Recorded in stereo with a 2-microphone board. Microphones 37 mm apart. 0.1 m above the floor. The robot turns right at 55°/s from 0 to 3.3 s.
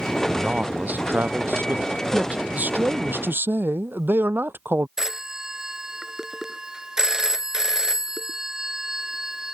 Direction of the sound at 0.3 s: 160° right.